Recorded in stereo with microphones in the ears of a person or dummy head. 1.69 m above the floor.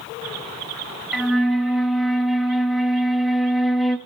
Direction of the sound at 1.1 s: Centre (ahead or behind).